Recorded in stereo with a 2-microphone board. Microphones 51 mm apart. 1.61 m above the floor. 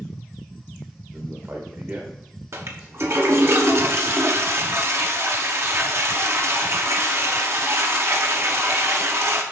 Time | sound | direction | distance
1.1 | a man speaking | 45° right (ahead or behind) | 1.3 m
2.5 | a toilet flushing | 55° right (ahead or behind) | 1.0 m